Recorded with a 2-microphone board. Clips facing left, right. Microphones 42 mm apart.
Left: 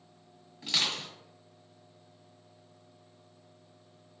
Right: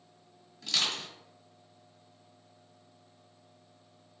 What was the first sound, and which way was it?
Crushing, 25° left (ahead or behind).